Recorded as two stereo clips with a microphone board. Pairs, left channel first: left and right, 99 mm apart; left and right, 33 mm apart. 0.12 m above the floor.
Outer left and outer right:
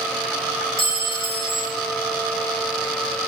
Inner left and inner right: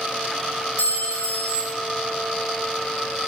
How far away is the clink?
About 2 m.